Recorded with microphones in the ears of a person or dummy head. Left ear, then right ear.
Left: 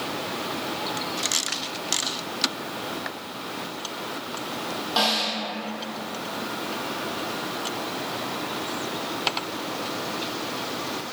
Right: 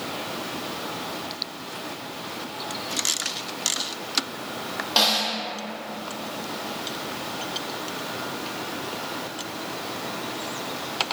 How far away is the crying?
I don't hear crying.